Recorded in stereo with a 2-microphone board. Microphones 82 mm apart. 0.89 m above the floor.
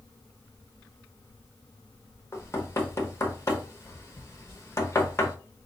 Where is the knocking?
35° left (ahead or behind), 1.0 m.